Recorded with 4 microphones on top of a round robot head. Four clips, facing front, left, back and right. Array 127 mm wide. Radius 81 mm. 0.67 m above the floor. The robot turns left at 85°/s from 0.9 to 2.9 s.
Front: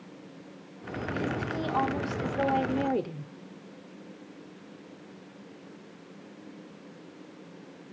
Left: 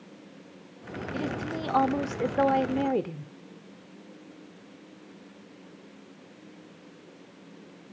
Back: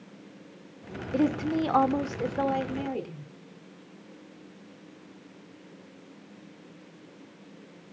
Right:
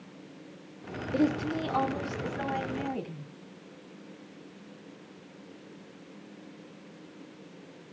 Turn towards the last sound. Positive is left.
turn(degrees=65)